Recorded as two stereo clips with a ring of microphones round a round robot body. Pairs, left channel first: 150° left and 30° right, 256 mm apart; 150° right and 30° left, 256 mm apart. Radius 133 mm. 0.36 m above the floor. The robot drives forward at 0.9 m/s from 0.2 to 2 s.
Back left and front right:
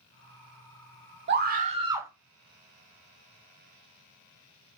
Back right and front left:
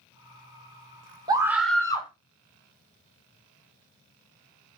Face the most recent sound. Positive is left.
turn(degrees=-95)